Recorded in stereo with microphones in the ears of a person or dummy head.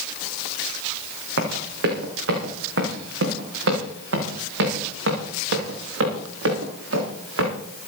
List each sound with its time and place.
1.4 s running footsteps: 65° right (ahead or behind), 6 m; by 7.5 s 80° right, 9 m